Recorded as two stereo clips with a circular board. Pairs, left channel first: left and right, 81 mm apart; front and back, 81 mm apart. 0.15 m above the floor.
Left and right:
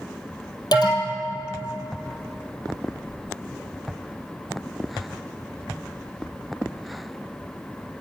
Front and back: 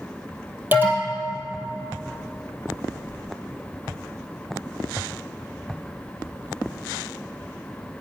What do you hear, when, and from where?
0.7 s an alarm: 115° left, 2.5 m